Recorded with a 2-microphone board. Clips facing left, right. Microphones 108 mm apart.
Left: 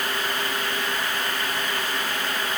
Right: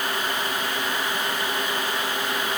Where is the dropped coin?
I don't hear a dropped coin.